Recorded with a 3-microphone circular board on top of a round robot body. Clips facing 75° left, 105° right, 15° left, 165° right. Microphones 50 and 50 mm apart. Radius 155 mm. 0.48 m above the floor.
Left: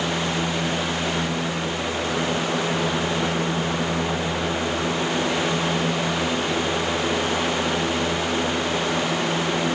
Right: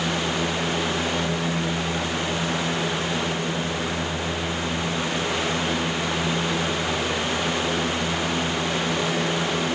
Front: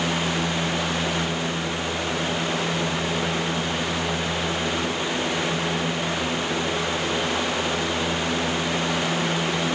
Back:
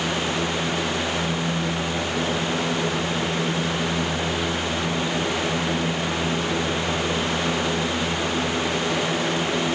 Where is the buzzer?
I don't hear a buzzer.